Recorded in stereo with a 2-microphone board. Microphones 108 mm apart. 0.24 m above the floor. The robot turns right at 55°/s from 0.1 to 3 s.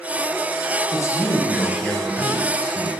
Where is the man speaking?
125° left, 1.2 m; by 2.9 s 125° right, 1.2 m.